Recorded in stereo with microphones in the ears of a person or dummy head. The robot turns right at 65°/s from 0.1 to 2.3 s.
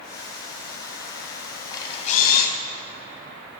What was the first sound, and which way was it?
A camera shutter, 20° left.